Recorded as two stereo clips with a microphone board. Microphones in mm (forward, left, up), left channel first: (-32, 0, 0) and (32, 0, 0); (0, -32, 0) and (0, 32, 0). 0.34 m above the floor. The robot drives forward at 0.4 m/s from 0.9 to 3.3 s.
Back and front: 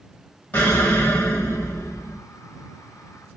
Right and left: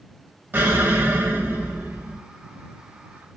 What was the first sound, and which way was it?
An explosion, 135° left.